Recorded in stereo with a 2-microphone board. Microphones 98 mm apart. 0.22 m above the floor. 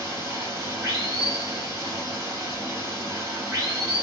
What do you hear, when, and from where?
0.0 s running water: 35° right (ahead or behind), 2 m